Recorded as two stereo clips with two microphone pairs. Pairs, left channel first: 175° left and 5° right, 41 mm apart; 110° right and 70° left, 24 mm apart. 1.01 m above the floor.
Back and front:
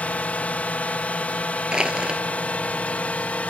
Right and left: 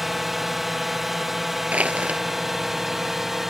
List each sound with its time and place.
0.0 s a drone: 145° left; by 3.5 s 135° left
1.7 s crushing: 60° left